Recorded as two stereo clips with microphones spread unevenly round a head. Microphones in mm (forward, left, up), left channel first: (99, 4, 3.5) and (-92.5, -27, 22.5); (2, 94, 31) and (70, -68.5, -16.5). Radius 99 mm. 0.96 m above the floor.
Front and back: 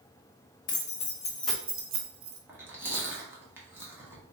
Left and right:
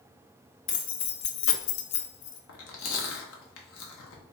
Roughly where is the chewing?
Left.